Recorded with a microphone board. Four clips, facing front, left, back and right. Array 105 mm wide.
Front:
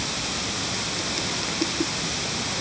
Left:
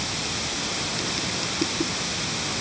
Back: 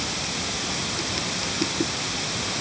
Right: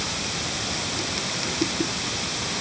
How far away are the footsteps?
I don't hear footsteps.